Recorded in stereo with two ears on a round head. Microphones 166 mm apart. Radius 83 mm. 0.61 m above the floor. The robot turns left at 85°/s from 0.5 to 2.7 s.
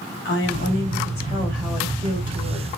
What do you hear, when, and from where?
0.2 s a woman speaking: 95° left, 3 m; by 2.7 s 90° right, 3 m